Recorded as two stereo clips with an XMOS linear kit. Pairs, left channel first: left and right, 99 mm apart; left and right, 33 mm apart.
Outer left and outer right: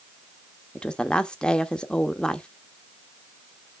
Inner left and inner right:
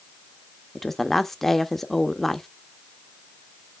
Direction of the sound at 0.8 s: 10° left (ahead or behind).